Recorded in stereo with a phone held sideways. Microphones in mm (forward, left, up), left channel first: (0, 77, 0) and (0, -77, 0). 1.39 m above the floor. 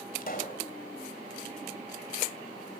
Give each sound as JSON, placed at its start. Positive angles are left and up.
{"t": 0.2, "sound": "a pop", "side_deg": 70, "distance_m": 3.0}